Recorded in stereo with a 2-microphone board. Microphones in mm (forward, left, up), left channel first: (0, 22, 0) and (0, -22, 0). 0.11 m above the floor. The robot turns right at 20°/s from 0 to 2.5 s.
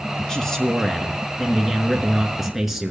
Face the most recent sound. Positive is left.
turn(degrees=-5)  # may be behind; listen again after turning